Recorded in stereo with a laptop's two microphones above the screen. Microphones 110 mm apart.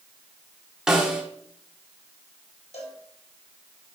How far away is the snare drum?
About 1.6 m.